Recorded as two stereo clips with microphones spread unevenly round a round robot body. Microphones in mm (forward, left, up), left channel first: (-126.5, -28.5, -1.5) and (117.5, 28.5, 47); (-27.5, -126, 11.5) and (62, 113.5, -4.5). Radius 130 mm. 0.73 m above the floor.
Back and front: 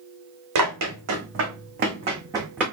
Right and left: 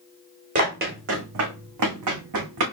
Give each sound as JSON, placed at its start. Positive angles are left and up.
{"t": 0.6, "sound": "running footsteps", "azimuth_deg": 10, "distance_m": 2.5}